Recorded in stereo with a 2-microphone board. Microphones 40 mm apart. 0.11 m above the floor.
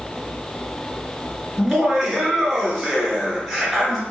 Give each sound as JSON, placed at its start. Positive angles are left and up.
{"t": 1.6, "sound": "laughter", "side_deg": -5, "distance_m": 1.6}